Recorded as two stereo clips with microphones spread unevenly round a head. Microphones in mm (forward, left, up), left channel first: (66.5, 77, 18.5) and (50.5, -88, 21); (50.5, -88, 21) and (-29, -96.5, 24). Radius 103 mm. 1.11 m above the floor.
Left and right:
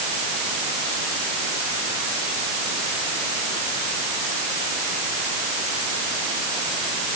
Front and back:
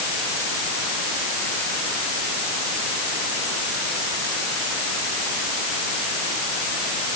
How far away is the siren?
I don't hear a siren.